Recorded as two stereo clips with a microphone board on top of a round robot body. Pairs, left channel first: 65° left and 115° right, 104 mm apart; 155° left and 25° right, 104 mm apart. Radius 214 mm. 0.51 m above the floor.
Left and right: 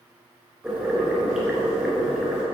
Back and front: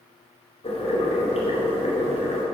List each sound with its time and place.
0.6 s boiling: 170° left, 3 m